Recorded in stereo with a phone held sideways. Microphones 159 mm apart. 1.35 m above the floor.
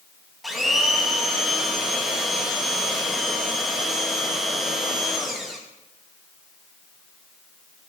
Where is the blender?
Centre (ahead or behind), 2.5 m.